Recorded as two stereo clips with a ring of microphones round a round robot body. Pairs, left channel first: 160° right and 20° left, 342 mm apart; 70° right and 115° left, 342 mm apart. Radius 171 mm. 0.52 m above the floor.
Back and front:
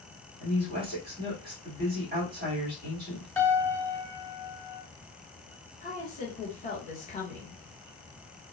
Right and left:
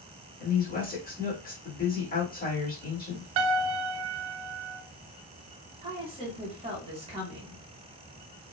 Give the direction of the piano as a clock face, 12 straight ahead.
8 o'clock.